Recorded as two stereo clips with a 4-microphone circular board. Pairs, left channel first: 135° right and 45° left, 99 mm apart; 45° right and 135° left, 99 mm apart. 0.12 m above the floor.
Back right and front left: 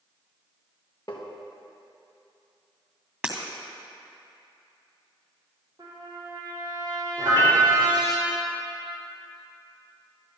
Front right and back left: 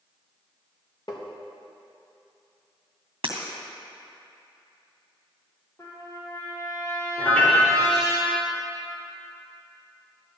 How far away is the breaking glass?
About 2.5 m.